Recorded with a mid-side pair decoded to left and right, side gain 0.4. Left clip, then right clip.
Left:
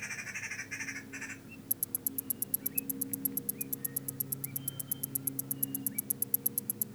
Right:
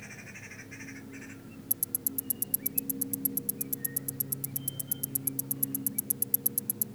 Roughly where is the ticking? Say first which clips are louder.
Right 4 dB; ahead right.